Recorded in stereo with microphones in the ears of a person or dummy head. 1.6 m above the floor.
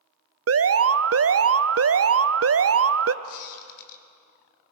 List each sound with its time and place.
0.5 s an alarm: 70° right (ahead or behind), 0.5 m
3.2 s a squeak: 60° left (ahead or behind), 1.7 m